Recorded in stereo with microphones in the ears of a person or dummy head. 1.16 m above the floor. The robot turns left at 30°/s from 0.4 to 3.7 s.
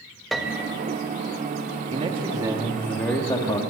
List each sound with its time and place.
0.3 s a piano: centre (ahead or behind), 1.4 m; by 0.7 s 10° right (ahead or behind), 1.4 m
1.9 s a man speaking: 150° right, 2.5 m; by 3.6 s 160° left, 2.5 m